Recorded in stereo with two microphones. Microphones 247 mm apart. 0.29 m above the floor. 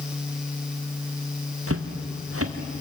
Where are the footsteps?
65° right (ahead or behind), 2.5 m.